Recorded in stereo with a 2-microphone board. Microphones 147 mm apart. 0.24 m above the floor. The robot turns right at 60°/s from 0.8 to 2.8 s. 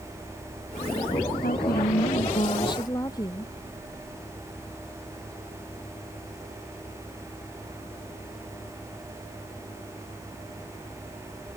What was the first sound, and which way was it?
A woman speaking, 70° left.